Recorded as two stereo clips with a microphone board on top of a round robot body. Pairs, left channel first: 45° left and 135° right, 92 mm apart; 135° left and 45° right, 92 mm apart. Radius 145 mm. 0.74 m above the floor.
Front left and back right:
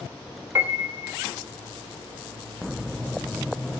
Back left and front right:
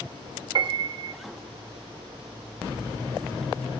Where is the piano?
75° right, 1.6 m.